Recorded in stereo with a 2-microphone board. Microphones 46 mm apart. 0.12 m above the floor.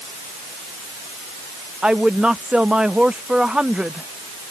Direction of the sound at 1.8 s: 20° right (ahead or behind).